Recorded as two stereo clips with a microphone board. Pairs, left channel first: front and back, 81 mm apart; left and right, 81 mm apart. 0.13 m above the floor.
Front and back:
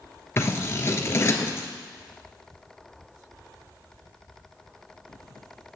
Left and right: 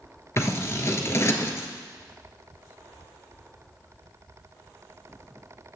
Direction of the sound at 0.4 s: 45° left.